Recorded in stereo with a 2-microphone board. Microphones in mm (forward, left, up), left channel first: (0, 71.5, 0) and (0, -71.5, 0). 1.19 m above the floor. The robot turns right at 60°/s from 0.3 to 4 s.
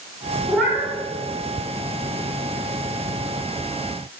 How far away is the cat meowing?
About 1.7 m.